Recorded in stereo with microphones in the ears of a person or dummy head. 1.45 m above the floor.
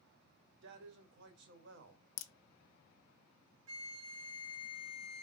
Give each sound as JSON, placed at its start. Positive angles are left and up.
{"t": 0.6, "sound": "a man speaking", "side_deg": -65, "distance_m": 1.0}
{"t": 2.2, "sound": "a crack", "side_deg": 55, "distance_m": 0.5}
{"t": 3.7, "sound": "a flute", "side_deg": -80, "distance_m": 0.8}